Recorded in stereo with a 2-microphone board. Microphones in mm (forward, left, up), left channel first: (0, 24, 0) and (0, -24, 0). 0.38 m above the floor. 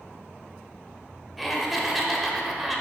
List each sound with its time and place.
1.4 s laughter: centre (ahead or behind), 1.1 m